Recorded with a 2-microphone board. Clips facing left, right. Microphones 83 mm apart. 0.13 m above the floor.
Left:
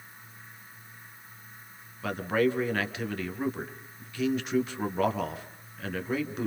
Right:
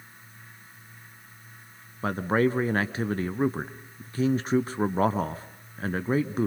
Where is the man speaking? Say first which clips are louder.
Right 2 dB; 35° right (ahead or behind), 1.7 m.